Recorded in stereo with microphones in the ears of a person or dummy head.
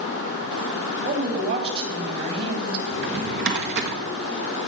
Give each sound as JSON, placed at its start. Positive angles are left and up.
{"t": 1.0, "sound": "a woman speaking", "side_deg": -55, "distance_m": 3.0}
{"t": 2.9, "sound": "a drawer", "side_deg": -65, "distance_m": 1.5}